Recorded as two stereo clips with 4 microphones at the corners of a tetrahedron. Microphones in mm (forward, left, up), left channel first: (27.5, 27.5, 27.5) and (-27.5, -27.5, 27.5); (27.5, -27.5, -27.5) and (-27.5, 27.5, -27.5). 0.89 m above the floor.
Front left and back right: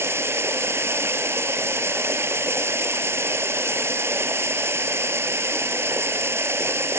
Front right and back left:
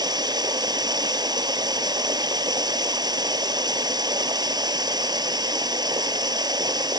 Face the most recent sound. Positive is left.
turn(degrees=165)